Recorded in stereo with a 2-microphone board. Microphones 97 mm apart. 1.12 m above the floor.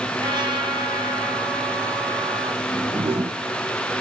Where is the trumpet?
50° right (ahead or behind), 5 m.